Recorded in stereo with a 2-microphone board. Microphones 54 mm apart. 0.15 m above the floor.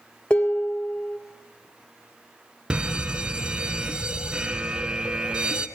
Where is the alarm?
15° right (ahead or behind), 1.0 m.